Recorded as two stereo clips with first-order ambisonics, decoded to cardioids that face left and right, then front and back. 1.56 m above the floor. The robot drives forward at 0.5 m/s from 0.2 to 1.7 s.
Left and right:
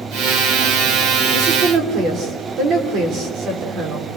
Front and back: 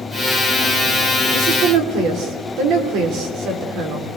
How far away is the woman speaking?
About 4 m.